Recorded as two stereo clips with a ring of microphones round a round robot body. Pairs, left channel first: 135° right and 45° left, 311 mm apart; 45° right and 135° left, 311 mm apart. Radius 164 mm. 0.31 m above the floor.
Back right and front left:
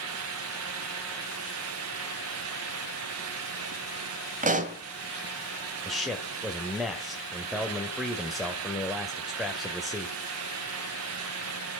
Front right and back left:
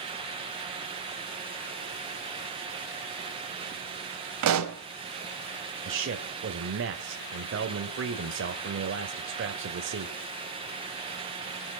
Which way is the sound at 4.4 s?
110° left.